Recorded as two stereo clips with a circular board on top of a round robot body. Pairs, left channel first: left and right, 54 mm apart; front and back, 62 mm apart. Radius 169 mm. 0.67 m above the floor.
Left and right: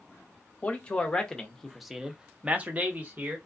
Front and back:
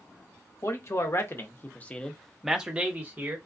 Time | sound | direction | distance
0.6 | a man speaking | 25° left | 1.1 m